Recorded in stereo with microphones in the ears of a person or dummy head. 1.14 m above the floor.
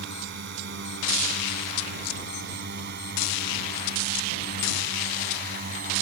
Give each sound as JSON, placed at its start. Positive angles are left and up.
{"t": 0.0, "sound": "a drone", "side_deg": -65}